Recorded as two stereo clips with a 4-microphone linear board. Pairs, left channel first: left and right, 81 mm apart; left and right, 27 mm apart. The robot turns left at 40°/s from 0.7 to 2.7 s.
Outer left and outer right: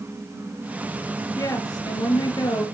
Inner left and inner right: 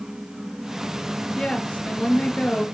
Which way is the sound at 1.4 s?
125° left.